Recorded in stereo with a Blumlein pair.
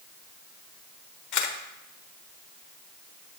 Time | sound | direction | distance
1.3 | a camera shutter | 45° left | 1.0 m